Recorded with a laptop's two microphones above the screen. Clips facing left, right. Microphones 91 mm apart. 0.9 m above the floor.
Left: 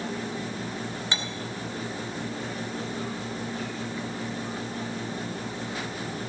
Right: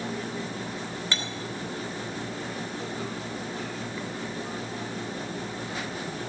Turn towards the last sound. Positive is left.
turn(degrees=20)  # may be behind; listen again after turning